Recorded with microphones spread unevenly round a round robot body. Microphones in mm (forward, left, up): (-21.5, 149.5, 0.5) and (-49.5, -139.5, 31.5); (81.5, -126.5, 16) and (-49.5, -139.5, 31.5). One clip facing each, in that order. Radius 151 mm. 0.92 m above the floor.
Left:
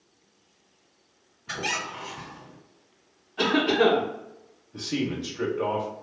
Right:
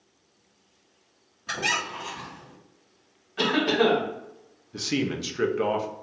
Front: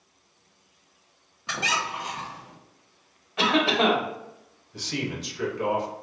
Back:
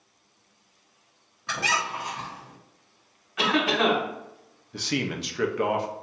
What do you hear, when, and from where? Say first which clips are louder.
1.5 s a squeak: even, back 1 dB; 70° right, 1.6 m
3.4 s a cough: left 1 dB, front 1 dB; 45° right, 1.4 m
4.7 s a man speaking: right 1 dB, back 3 dB; 145° right, 0.6 m